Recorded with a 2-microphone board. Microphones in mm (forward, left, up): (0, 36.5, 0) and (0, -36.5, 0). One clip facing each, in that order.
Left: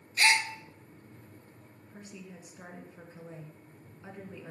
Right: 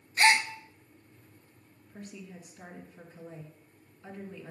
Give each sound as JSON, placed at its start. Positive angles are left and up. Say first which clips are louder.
{"t": 0.2, "sound": "a gasp", "louder": "right 3 dB", "side_deg": -35, "distance_m": 0.6}
{"t": 1.9, "sound": "a woman speaking", "louder": "right 2 dB", "side_deg": 15, "distance_m": 2.0}